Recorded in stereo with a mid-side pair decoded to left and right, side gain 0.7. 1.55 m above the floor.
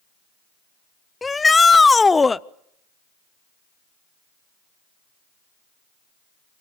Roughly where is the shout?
Ahead.